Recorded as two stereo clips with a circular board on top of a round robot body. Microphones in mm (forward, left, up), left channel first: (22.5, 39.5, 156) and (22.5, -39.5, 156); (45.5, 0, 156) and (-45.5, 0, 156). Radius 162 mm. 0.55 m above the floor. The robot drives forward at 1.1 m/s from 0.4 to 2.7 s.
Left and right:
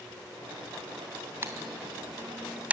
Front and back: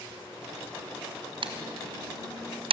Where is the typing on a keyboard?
155° right, 1.9 m; by 2.7 s 165° right, 3 m.